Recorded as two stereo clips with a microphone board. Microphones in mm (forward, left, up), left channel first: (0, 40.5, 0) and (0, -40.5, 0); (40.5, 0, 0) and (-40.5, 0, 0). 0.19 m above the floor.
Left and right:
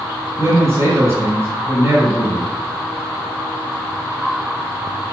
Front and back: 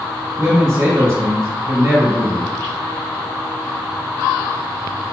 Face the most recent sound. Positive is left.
turn(degrees=-135)